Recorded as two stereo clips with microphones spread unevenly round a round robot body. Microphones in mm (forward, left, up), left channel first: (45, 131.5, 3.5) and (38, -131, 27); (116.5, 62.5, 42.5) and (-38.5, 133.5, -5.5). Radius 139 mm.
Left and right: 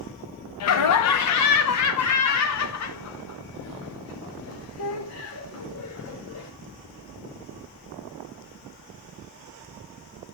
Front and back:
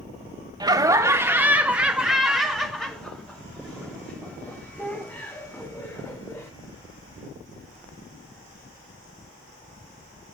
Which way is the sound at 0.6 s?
100° left.